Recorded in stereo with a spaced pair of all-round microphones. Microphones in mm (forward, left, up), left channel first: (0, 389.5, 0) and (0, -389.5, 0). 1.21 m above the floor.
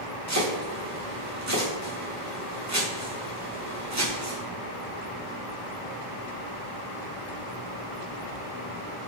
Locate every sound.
0.3 s chopping: 20° right (ahead or behind), 1.0 m